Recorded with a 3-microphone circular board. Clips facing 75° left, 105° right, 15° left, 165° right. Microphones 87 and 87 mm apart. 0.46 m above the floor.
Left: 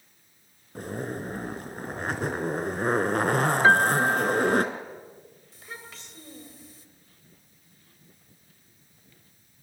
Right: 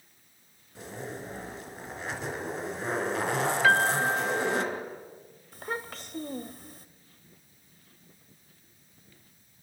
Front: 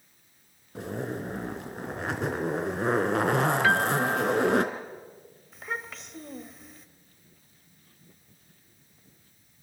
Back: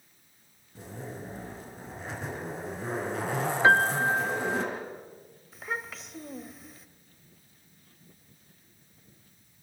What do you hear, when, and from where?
0.8 s a zipper: 35° left, 1.8 m
3.6 s a piano: 130° left, 0.5 m
5.5 s a child speaking: 80° right, 1.3 m